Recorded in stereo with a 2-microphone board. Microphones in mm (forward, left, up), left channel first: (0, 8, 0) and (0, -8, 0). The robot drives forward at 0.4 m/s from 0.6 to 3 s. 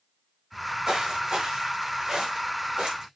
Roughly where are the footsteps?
Right.